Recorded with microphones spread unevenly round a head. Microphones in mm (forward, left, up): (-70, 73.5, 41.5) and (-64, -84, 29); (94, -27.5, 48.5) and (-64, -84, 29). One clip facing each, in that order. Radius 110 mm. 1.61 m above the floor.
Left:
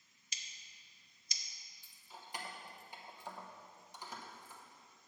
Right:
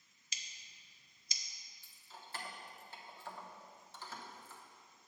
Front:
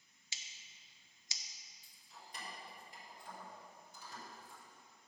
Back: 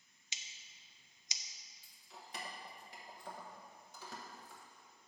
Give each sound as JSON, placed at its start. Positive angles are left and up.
{"t": 0.3, "sound": "scissors", "azimuth_deg": -85, "distance_m": 0.6}
{"t": 1.8, "sound": "keys jangling", "azimuth_deg": 160, "distance_m": 0.9}